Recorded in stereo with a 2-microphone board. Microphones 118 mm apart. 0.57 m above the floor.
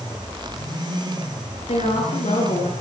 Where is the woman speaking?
70° left (ahead or behind), 9.5 m.